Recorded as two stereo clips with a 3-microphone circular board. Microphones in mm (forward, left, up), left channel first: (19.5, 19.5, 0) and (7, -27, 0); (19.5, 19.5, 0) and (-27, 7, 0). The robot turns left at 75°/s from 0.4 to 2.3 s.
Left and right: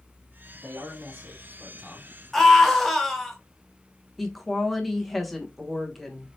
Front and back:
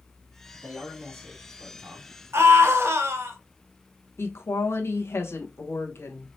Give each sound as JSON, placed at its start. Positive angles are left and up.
{"t": 0.5, "sound": "a man speaking", "azimuth_deg": -95, "distance_m": 2.5}
{"t": 2.3, "sound": "a scream", "azimuth_deg": 160, "distance_m": 1.2}
{"t": 4.2, "sound": "a woman speaking", "azimuth_deg": -15, "distance_m": 1.0}